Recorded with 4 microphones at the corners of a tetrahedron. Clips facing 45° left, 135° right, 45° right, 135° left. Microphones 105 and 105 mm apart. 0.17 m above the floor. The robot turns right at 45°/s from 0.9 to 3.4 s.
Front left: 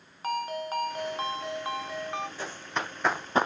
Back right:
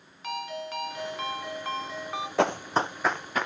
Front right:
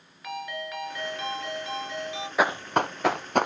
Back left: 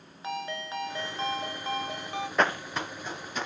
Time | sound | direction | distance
0.2 | a ringtone | 85° left | 1.2 m
2.4 | running footsteps | 130° right | 0.6 m